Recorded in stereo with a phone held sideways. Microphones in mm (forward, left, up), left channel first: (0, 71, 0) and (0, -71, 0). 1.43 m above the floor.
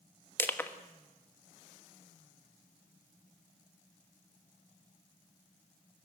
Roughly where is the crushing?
Centre.